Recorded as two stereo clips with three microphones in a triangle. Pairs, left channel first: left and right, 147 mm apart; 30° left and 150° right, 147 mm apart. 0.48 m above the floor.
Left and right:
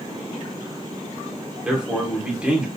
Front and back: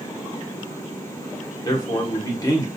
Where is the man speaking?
10° right, 1.4 m.